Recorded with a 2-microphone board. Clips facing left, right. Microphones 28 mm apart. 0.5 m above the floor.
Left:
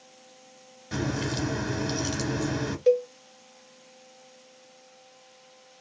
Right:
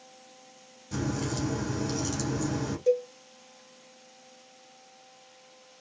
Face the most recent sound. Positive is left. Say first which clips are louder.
# left 4 dB
turn(degrees=45)  # may be behind; listen again after turning